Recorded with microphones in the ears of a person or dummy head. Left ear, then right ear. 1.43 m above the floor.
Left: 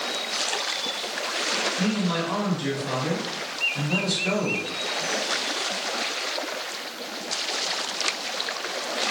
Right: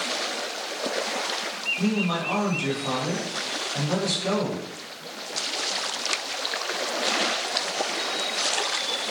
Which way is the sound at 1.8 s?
55° right (ahead or behind).